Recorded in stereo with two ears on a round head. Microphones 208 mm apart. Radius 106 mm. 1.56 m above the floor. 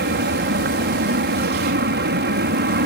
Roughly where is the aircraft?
Right.